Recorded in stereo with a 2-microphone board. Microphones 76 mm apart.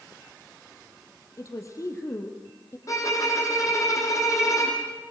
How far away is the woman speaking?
About 3.5 m.